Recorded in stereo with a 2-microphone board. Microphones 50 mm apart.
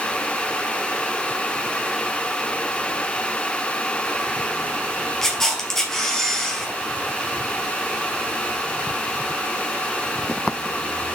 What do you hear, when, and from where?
5.2 s a camera shutter: 10° left (ahead or behind), 2.5 m